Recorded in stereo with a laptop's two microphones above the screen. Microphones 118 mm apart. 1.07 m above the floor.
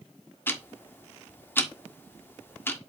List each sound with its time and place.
0.5 s ticking: 20° left (ahead or behind), 1.4 m